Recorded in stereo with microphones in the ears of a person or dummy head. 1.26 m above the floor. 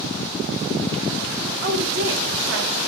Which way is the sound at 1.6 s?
45° right (ahead or behind).